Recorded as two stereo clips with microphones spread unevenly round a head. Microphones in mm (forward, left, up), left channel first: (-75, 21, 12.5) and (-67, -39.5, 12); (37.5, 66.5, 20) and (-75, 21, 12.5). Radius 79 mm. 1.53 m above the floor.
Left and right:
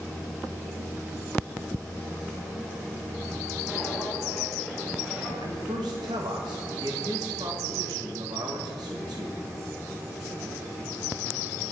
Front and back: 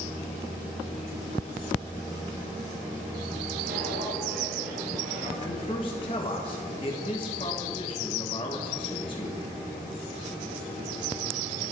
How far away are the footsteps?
About 3.5 m.